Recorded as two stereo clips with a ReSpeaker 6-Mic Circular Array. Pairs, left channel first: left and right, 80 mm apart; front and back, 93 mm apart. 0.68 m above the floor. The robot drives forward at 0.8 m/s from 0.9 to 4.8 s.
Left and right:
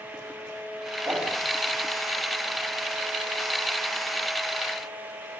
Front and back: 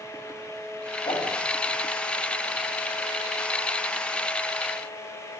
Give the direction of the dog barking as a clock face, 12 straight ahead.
No dog barking in this recording.